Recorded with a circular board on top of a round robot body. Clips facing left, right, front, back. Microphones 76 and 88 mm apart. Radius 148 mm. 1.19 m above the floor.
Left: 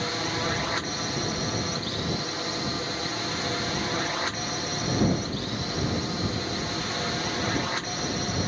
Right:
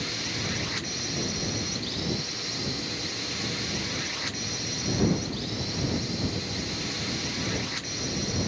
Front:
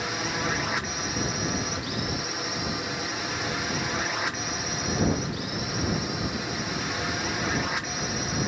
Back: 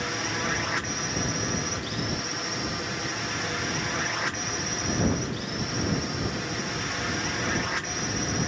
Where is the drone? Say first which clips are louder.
Left 6 dB, front 1 dB; 85° left.